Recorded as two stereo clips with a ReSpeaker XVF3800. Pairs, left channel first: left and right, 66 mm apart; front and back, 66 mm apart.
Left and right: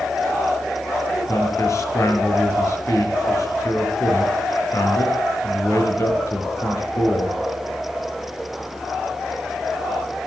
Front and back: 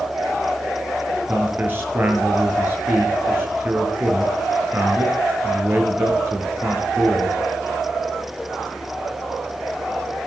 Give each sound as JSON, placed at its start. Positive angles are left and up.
{"t": 1.3, "sound": "a man speaking", "azimuth_deg": 125, "distance_m": 4.5}